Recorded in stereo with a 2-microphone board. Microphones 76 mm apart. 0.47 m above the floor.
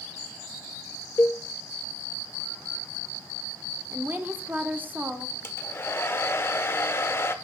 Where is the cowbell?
30° left (ahead or behind), 0.7 m.